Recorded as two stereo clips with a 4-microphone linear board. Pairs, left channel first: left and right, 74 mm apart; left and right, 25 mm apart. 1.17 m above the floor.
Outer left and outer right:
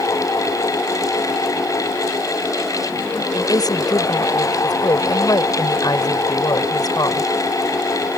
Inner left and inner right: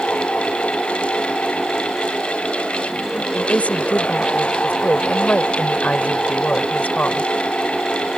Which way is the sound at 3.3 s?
65° left (ahead or behind).